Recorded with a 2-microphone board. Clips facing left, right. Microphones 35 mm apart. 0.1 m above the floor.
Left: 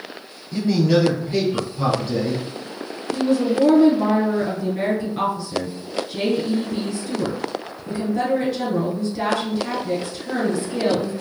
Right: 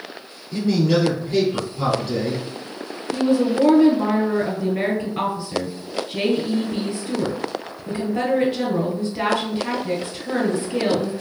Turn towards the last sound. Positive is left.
turn(degrees=-20)  # may be behind; listen again after turning